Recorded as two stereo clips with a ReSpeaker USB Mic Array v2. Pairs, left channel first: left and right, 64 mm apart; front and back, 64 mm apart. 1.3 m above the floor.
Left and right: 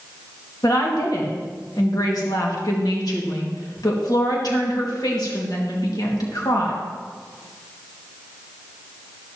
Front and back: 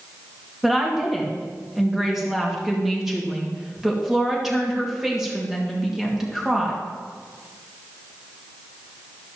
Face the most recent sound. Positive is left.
turn(degrees=95)